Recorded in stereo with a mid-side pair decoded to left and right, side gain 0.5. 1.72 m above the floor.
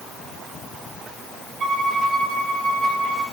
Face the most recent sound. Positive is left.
turn(degrees=-45)